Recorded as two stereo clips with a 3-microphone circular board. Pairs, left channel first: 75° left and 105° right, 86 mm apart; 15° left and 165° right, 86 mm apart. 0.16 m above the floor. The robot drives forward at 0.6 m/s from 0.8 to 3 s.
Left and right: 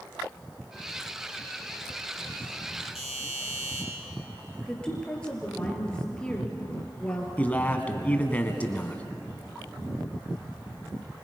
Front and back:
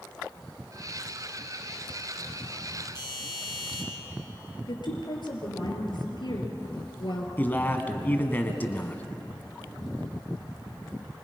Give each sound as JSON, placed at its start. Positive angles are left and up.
{"t": 3.0, "sound": "a doorbell", "azimuth_deg": -20, "distance_m": 6.0}
{"t": 4.7, "sound": "a woman speaking", "azimuth_deg": -5, "distance_m": 3.5}
{"t": 7.4, "sound": "a man speaking", "azimuth_deg": 35, "distance_m": 1.3}